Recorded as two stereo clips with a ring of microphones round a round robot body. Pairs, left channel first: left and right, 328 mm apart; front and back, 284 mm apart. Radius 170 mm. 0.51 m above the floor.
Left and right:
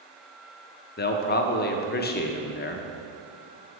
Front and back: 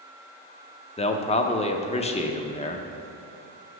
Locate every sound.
1.0 s a man speaking: 55° left, 0.7 m